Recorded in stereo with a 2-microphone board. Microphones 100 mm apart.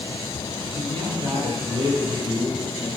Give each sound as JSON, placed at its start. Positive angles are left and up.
{"t": 0.7, "sound": "a man speaking", "side_deg": -75, "distance_m": 10.0}